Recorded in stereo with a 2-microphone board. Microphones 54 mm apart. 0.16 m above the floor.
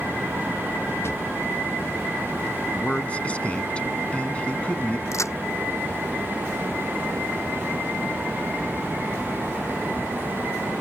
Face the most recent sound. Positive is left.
turn(degrees=65)  # may be behind; listen again after turning